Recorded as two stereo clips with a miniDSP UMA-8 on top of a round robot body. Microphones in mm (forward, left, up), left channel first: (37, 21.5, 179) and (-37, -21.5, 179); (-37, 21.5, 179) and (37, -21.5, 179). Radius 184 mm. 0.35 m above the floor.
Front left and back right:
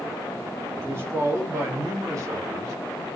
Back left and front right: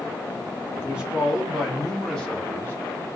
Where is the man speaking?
100° right, 1.7 m; by 2.8 s 160° right, 1.3 m.